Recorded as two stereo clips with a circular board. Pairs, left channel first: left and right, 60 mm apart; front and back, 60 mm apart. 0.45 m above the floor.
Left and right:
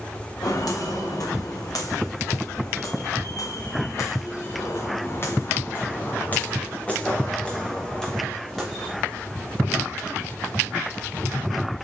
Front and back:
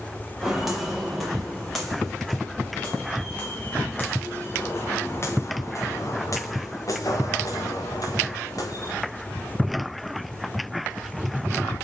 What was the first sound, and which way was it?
Footsteps, 95° left.